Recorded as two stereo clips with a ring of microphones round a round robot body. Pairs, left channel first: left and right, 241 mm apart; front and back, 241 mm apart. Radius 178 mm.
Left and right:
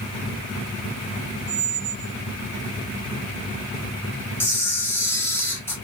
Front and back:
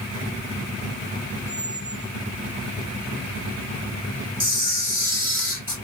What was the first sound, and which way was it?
A squeak, 95° right.